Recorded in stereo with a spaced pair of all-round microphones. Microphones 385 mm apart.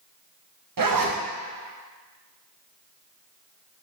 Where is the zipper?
60° right (ahead or behind), 0.5 m.